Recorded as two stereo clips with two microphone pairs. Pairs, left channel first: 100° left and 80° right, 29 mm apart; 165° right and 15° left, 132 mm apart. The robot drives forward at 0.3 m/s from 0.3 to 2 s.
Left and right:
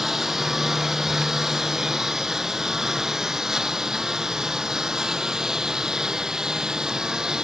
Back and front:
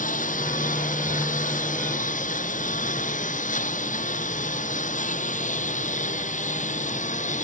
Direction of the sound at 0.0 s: 160° right.